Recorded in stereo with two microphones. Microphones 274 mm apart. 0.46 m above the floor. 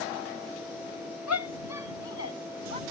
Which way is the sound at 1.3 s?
80° left.